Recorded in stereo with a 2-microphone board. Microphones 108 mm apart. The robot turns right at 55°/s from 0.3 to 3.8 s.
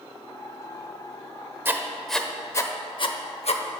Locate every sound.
1.6 s writing: 20° right (ahead or behind), 0.6 m; by 3.6 s 65° left (ahead or behind), 0.6 m